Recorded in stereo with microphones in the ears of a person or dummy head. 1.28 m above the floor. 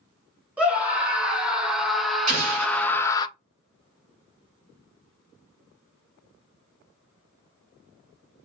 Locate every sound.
0.6 s a scream: 5° right (ahead or behind), 2 m; by 3.3 s 30° left (ahead or behind), 0.5 m
2.3 s an explosion: 45° right (ahead or behind), 2.5 m